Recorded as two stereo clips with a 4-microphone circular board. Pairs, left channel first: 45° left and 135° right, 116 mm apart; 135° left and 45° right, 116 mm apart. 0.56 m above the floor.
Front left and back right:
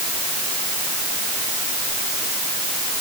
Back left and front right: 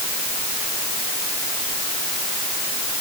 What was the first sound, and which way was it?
Only background noise.